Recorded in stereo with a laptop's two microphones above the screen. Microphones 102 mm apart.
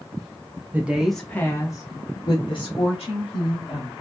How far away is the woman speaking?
About 0.6 m.